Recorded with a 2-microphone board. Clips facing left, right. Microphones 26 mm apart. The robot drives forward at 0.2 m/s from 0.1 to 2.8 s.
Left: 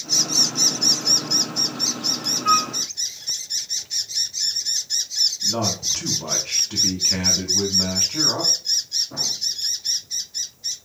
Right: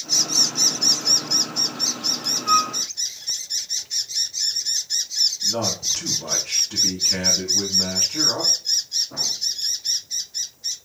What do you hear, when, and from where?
2.5 s a flute: 75° left (ahead or behind), 1.1 m
5.4 s a man speaking: 30° left (ahead or behind), 2 m